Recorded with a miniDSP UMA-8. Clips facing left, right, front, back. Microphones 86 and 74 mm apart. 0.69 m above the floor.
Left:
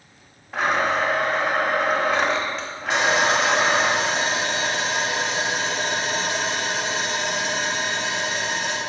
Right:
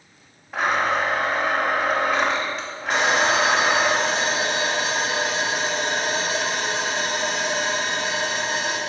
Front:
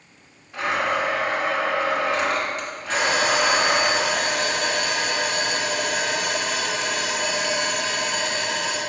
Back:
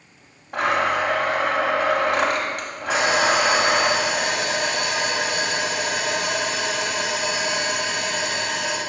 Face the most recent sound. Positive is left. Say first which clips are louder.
# even, back 2 dB
turn(degrees=-100)